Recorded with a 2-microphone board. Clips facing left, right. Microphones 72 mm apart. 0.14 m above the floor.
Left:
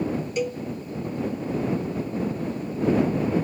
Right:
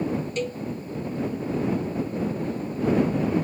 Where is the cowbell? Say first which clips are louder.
Left 2 dB; 10° left (ahead or behind).